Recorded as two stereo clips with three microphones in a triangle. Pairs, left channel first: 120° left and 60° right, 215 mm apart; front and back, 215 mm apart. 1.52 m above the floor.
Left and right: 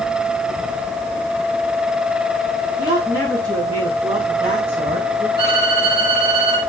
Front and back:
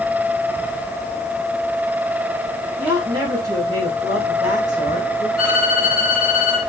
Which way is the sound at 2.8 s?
105° right.